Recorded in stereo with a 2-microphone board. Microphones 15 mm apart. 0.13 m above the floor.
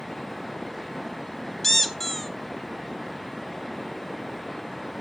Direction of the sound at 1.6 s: 15° left (ahead or behind).